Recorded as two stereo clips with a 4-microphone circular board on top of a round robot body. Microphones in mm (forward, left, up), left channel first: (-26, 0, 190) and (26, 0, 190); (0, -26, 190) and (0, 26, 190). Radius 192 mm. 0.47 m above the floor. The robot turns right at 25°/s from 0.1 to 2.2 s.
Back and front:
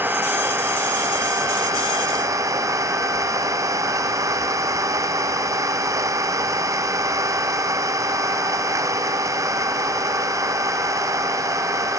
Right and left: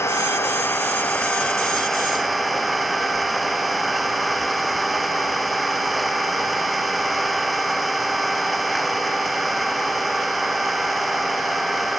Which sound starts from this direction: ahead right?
An engine running, at 0.0 s.